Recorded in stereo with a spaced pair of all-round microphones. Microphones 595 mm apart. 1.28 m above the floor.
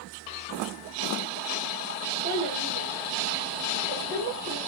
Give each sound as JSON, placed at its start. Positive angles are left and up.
{"t": 2.2, "sound": "a child speaking", "side_deg": -10, "distance_m": 3.0}